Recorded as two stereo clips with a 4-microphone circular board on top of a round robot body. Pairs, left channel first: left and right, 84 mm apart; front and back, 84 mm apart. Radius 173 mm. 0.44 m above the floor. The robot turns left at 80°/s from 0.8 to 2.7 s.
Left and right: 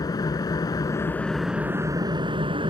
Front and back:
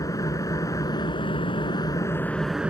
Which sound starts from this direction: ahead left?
An engine running, at 0.0 s.